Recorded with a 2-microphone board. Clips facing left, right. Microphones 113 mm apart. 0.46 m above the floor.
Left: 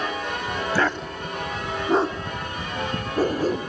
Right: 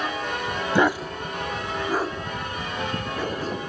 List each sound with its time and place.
0.8 s a dog barking: 20° right (ahead or behind), 0.9 m; by 3.7 s 40° left (ahead or behind), 3.5 m